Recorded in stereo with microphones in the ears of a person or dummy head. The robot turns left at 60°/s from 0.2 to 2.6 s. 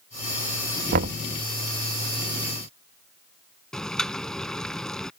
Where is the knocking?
40° right (ahead or behind); by 1.2 s 30° right (ahead or behind).